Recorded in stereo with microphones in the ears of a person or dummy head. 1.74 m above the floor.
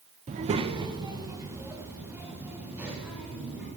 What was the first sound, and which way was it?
A child speaking, 30° right (ahead or behind).